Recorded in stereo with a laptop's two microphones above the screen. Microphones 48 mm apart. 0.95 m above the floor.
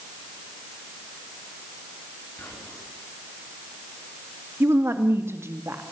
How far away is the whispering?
About 8.5 m.